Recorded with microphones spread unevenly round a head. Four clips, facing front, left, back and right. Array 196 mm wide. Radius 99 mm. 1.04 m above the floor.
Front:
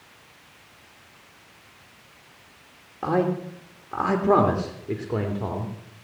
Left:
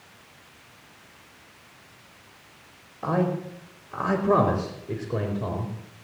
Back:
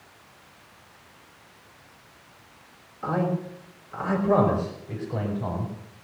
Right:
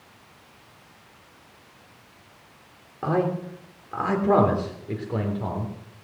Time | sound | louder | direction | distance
3.0 | a man speaking | right 1 dB, front 3 dB | 40° right | 3 m